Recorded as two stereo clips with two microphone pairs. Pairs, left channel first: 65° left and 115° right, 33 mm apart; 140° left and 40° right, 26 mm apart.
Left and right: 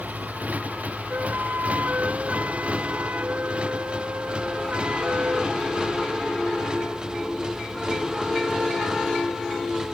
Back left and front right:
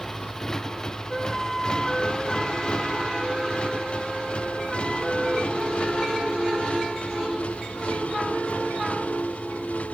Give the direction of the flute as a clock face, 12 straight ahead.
4 o'clock.